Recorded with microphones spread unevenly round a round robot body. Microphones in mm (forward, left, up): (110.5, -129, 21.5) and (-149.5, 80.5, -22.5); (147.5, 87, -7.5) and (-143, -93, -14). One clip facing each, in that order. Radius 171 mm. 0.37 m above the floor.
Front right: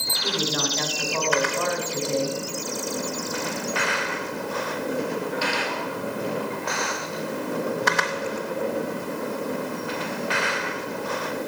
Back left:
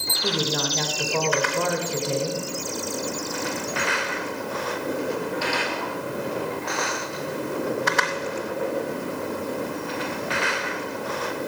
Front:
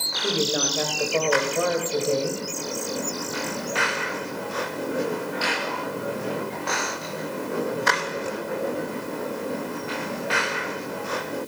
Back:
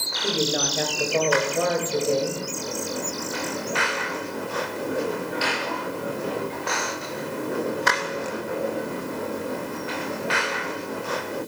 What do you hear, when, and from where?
0.2 s a woman speaking: 120° left, 1.3 m